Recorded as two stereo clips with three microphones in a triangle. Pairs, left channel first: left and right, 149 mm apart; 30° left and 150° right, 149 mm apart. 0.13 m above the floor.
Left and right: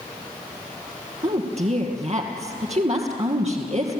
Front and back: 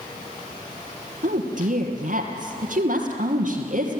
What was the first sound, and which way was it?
A woman speaking, 130° right.